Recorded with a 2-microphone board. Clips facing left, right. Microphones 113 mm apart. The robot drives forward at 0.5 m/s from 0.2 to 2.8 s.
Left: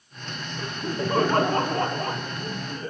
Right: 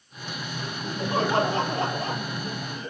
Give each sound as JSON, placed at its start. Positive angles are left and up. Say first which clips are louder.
{"t": 0.6, "sound": "laughter", "louder": "left 4 dB", "side_deg": 55, "distance_m": 5.5}